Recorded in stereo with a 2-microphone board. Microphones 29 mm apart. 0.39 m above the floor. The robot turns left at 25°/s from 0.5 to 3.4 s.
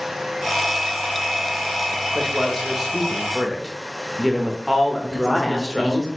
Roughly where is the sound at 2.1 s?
Centre.